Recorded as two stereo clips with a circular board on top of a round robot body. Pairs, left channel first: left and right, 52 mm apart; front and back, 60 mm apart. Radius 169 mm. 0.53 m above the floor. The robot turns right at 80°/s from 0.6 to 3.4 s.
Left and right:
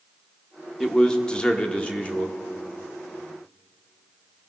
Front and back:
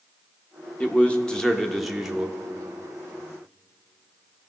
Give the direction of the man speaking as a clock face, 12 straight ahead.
12 o'clock.